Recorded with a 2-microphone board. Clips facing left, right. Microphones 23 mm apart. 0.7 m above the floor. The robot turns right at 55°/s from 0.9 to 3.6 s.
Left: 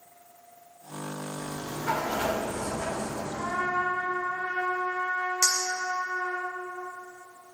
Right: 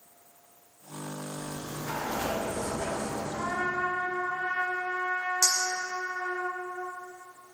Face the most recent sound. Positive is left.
turn(degrees=35)  # may be behind; listen again after turning